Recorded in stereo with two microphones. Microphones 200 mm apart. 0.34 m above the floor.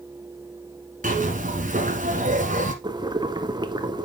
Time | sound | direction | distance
1.0 | a zipper | 40° right (ahead or behind) | 1.3 m
2.8 | boiling | 20° right (ahead or behind) | 0.6 m